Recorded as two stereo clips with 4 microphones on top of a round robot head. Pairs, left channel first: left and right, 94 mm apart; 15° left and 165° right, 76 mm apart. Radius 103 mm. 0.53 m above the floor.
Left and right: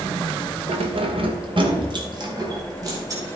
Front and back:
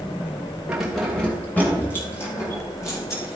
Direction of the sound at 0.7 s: 85° right.